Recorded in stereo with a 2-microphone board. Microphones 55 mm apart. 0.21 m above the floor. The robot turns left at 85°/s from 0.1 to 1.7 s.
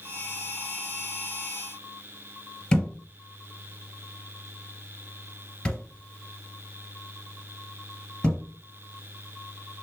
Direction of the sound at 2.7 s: 15° left (ahead or behind).